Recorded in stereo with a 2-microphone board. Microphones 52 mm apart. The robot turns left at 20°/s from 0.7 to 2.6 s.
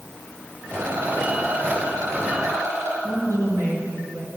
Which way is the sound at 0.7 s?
75° right.